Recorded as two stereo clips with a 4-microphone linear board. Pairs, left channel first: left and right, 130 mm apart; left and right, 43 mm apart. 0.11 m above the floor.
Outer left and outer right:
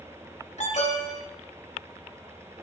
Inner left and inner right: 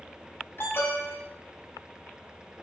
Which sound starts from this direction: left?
An alarm, at 0.6 s.